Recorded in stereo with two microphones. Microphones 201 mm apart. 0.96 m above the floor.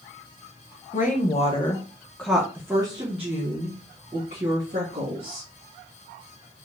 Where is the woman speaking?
45° left (ahead or behind), 1.0 m; by 5.5 s 55° right (ahead or behind), 1.9 m.